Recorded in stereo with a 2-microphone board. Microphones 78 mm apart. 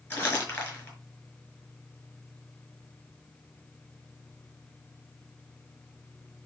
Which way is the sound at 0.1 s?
25° left (ahead or behind).